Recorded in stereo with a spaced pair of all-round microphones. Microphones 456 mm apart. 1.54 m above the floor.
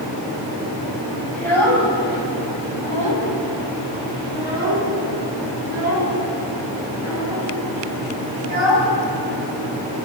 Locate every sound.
1.3 s a child speaking: 80° left, 6.5 m